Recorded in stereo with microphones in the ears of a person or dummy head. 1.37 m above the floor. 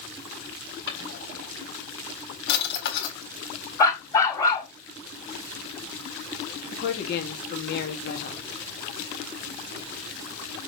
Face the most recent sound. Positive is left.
turn(degrees=55)  # may be behind; listen again after turning